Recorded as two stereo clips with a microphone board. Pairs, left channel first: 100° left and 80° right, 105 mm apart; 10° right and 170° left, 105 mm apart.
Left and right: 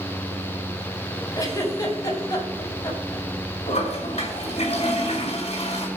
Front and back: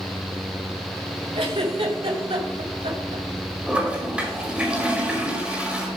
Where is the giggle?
150° left, 3 m.